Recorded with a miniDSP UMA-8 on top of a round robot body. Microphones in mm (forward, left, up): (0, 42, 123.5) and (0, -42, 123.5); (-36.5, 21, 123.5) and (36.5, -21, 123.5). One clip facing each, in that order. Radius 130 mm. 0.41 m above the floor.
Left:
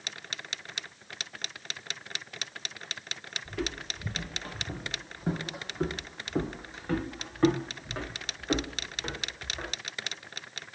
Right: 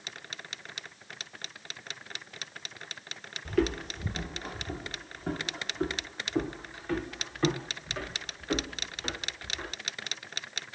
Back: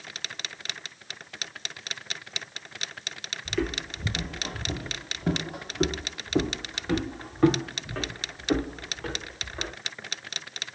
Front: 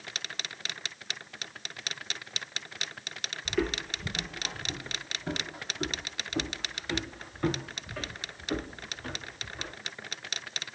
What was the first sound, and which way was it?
Footsteps, 110° right.